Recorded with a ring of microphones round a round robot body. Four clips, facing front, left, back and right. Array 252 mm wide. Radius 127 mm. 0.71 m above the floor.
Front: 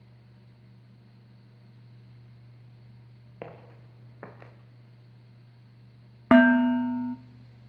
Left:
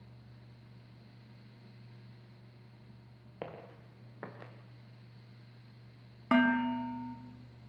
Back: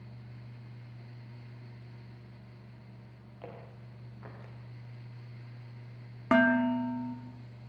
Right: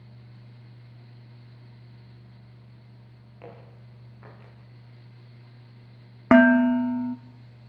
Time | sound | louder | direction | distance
3.4 | footsteps | left 1 dB, front 4 dB | 35° left | 4 m
6.3 | dishes clattering | right 12 dB, front 7 dB | 60° right | 0.8 m